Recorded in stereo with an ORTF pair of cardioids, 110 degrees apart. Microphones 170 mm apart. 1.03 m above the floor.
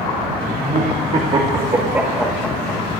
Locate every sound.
0.6 s laughter: 50° right, 1.9 m; by 2.8 s 20° left, 1.2 m